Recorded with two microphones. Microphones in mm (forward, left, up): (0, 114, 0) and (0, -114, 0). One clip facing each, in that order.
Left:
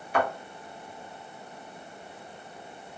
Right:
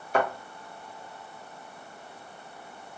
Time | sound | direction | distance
0.1 | a thud | 45° right (ahead or behind) | 1.5 m